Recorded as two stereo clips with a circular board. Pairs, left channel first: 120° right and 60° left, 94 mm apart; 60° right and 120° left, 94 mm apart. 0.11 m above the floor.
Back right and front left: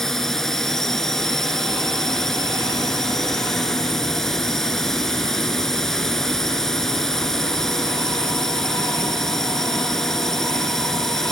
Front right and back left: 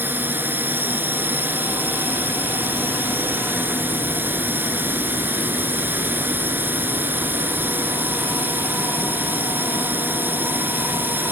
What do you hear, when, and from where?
0.0 s a drone: 160° left